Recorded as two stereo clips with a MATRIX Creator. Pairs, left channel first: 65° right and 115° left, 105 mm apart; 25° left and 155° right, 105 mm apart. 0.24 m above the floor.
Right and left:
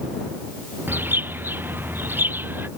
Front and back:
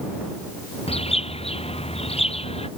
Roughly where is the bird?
Ahead left.